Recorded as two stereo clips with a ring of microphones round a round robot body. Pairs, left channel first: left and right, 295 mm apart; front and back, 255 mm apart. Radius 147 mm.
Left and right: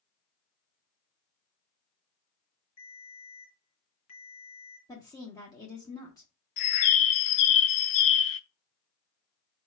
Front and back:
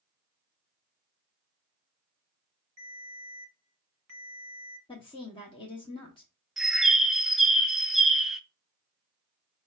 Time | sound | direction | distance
2.8 | a ringtone | 135° left | 2.5 m
4.9 | a woman speaking | 30° left | 0.9 m
6.6 | a bird | 90° left | 0.5 m